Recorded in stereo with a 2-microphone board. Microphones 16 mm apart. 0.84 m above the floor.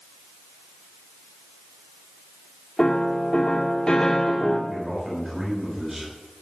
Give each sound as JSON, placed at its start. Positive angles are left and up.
{"t": 2.8, "sound": "a piano", "side_deg": 45, "distance_m": 2.0}
{"t": 4.7, "sound": "a man speaking", "side_deg": -30, "distance_m": 5.5}